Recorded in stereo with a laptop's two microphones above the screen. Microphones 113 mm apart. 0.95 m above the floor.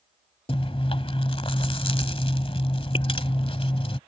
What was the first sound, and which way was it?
Chewing, 50° left (ahead or behind).